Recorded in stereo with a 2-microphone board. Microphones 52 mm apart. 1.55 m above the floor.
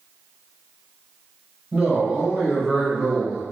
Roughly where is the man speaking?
Right.